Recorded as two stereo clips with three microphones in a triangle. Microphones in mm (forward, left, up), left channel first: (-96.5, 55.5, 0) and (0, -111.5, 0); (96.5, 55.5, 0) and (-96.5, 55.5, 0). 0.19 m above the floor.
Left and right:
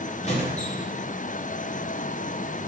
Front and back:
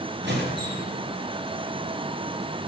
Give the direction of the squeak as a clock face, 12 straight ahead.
6 o'clock.